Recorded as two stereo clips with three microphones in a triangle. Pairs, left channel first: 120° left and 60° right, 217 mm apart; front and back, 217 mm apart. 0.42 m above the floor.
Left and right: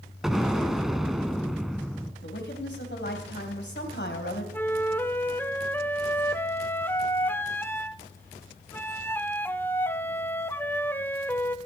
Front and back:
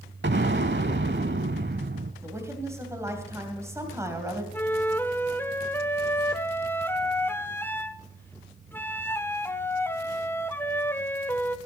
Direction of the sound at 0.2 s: 150° right.